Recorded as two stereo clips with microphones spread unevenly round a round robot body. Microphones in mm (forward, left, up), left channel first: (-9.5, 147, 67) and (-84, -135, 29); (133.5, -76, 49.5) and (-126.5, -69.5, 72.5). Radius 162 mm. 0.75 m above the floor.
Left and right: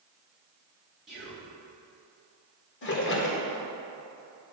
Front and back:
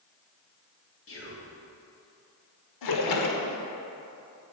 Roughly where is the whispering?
Ahead.